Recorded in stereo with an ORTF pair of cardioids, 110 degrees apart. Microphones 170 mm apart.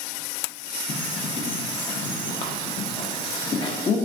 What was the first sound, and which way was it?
A bird, 30° left.